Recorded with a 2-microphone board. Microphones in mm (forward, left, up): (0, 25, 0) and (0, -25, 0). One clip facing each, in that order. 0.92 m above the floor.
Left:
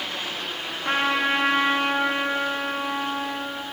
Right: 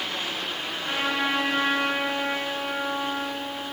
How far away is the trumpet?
About 0.6 m.